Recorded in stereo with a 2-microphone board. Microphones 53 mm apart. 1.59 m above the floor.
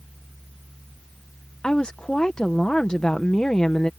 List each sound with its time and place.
1.6 s a woman speaking: 15° left (ahead or behind)